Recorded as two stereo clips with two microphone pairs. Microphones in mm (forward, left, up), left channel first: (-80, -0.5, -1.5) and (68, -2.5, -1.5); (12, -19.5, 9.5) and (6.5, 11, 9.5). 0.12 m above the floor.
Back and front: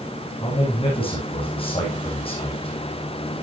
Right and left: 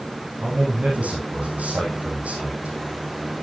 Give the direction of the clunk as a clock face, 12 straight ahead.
No clunk in this recording.